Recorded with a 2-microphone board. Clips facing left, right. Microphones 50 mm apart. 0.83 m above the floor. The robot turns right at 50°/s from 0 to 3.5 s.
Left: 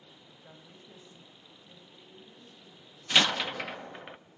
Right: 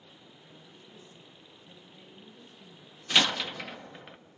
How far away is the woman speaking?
About 4.5 m.